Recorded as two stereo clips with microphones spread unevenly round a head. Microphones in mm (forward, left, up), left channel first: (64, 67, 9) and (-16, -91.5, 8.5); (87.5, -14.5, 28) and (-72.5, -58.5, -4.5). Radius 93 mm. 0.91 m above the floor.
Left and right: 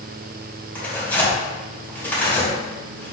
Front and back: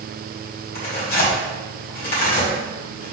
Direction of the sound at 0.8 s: 15° right.